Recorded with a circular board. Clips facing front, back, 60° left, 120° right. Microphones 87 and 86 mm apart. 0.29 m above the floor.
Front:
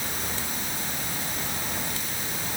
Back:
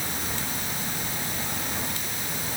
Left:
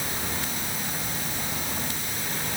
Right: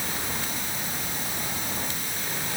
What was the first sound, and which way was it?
Only background noise.